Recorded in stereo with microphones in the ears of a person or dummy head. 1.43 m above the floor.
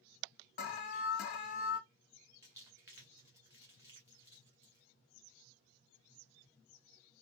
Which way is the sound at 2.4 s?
15° right (ahead or behind).